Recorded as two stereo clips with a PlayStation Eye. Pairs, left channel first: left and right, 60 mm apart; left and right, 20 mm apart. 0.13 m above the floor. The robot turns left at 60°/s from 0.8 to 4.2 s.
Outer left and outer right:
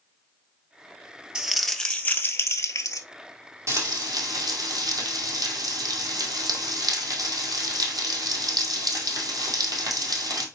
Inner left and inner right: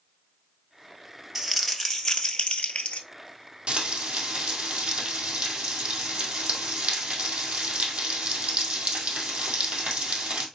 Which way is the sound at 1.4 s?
165° right.